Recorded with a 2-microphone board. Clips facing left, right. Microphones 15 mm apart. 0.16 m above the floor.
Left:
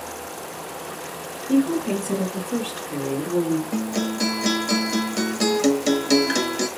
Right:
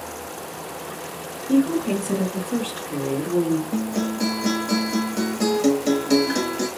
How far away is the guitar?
About 0.9 m.